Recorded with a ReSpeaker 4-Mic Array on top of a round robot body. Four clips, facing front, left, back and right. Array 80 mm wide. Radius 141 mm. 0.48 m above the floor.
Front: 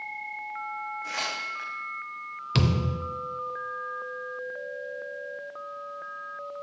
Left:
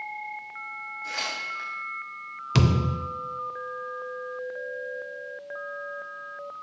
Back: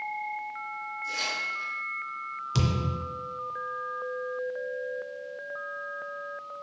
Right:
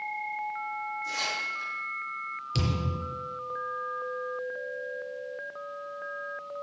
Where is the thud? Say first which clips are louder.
Left 8 dB, front 3 dB; 70° left, 0.6 m.